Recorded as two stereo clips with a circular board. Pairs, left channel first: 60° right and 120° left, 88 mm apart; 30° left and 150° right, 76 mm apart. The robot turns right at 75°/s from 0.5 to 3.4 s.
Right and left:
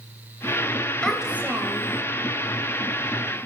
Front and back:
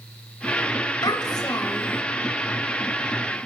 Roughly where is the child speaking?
Ahead.